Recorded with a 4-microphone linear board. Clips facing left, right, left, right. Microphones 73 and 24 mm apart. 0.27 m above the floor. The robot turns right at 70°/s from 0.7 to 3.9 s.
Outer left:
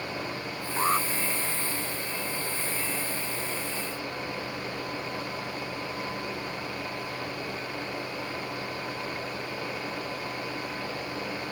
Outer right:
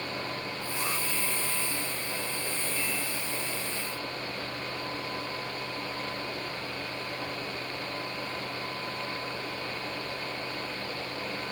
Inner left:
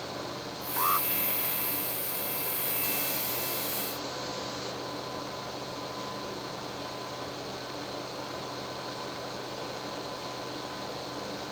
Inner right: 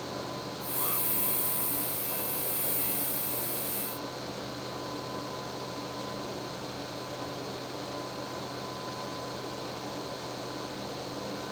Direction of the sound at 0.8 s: 40° left (ahead or behind).